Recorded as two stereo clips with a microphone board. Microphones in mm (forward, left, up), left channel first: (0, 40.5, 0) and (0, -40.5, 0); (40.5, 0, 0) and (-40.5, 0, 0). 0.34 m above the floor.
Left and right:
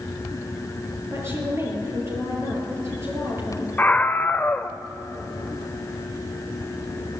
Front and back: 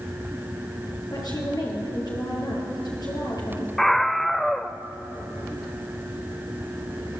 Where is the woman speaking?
35° right, 8 m.